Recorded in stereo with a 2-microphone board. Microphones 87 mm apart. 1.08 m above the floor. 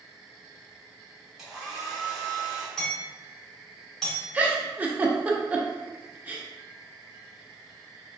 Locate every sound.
1.4 s a hair dryer: 5° right (ahead or behind), 1.6 m
2.8 s hammering: 10° left (ahead or behind), 1.7 m
4.3 s a giggle: 20° right (ahead or behind), 0.5 m